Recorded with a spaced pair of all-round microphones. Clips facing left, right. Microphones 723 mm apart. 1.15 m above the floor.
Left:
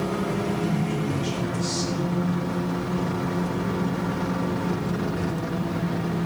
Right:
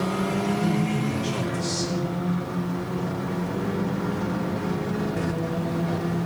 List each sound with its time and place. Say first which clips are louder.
0.6 s a man speaking: right 1 dB; 80° right, 7.5 m